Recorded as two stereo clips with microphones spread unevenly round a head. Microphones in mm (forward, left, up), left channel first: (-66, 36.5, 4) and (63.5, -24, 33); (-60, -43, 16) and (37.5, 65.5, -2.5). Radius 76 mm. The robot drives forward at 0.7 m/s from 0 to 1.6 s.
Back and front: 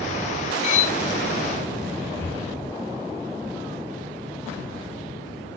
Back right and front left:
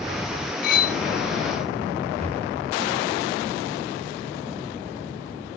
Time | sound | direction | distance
0.6 | cutlery clinking | 160° right | 0.6 m
2.2 | breathing | 75° left | 0.7 m